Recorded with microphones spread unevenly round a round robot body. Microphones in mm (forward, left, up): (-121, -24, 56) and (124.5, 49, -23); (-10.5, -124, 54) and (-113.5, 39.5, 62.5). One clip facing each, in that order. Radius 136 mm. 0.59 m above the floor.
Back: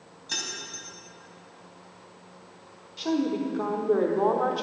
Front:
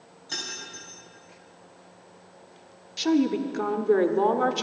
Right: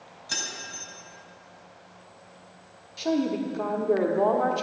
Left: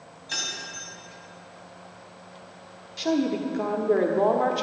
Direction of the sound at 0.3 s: 95° right.